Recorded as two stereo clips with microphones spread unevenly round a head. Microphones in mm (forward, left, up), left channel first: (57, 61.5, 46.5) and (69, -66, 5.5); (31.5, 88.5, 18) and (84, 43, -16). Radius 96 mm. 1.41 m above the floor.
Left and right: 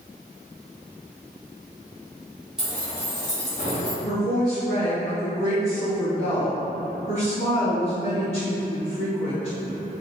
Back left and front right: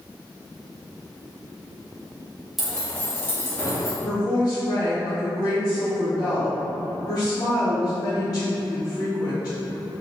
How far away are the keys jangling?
About 0.5 m.